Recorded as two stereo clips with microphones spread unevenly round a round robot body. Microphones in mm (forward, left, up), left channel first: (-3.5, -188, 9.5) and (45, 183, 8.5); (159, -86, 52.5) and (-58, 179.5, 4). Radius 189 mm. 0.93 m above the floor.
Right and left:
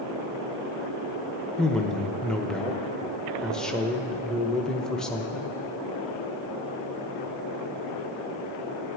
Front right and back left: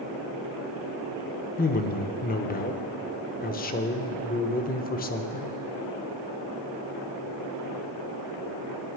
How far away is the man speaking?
About 0.9 m.